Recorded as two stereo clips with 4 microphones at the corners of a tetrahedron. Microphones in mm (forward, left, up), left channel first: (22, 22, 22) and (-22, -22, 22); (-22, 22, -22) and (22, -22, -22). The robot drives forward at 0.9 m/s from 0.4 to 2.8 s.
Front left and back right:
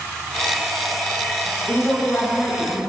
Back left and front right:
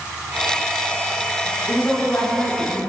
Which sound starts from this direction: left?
A woman speaking, at 1.7 s.